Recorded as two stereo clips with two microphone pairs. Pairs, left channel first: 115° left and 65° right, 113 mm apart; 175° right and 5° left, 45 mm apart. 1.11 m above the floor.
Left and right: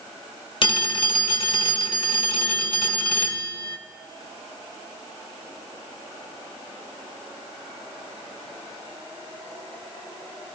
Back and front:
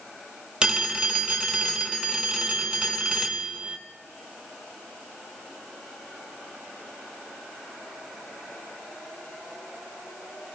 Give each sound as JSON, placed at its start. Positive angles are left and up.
{"t": 0.6, "sound": "a phone ringing", "azimuth_deg": 75, "distance_m": 1.1}